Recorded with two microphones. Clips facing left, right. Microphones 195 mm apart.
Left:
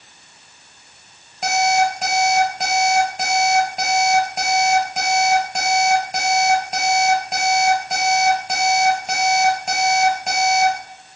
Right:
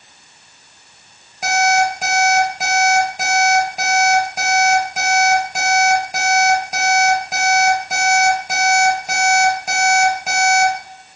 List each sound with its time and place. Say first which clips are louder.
1.4 s an alarm clock: right 1 dB; 5° right (ahead or behind), 3.5 m